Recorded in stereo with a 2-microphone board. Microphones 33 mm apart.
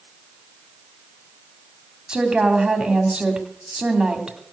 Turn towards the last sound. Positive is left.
turn(degrees=-30)  # may be behind; listen again after turning